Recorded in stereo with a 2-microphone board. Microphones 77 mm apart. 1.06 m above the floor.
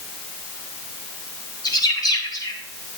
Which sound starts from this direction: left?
A bird, at 1.6 s.